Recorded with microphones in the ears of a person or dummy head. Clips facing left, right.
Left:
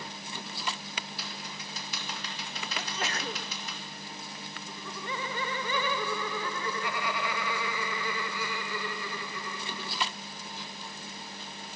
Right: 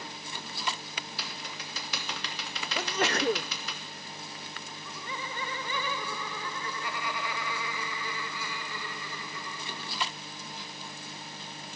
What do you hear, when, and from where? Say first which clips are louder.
1.2 s typing on a keyboard: even; 65° right (ahead or behind), 3 m
2.8 s a sneeze: right 8 dB; 50° right (ahead or behind), 0.6 m
4.7 s laughter: left 5 dB; 60° left (ahead or behind), 0.9 m